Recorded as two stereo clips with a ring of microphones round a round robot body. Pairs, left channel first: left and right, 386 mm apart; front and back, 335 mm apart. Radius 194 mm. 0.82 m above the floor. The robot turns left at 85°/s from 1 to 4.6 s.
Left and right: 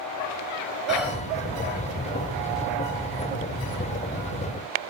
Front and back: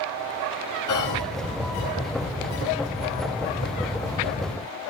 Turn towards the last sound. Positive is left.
turn(degrees=80)